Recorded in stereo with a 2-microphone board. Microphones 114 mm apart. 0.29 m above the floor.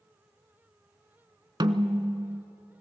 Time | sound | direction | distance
1.6 | a snare drum | 40° right (ahead or behind) | 0.6 m